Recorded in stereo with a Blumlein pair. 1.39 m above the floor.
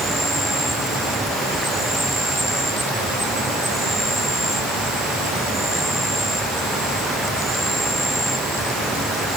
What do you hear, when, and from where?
0.0 s an insect: 5° right